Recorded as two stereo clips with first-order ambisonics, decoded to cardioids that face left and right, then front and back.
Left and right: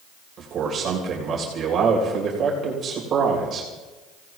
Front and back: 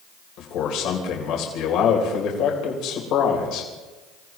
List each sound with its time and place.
0.4 s a man speaking: 30° right, 3 m